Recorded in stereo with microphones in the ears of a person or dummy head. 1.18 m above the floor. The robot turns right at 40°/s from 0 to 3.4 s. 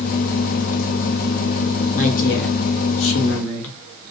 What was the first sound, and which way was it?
A woman speaking, 35° left.